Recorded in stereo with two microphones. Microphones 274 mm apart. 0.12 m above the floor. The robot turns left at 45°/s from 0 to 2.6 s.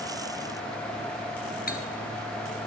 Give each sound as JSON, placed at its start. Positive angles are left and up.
{"t": 1.7, "sound": "cutlery clinking", "side_deg": 35, "distance_m": 1.2}